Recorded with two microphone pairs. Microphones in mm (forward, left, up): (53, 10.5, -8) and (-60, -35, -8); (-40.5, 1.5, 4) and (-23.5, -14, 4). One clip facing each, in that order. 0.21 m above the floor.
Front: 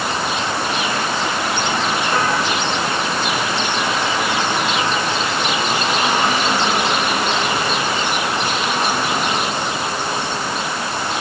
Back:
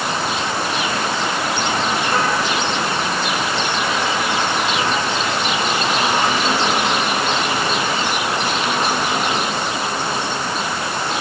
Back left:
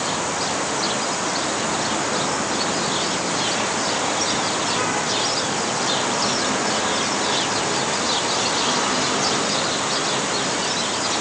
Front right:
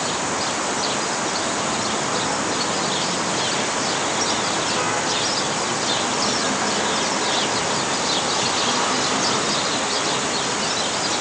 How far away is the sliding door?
I don't hear a sliding door.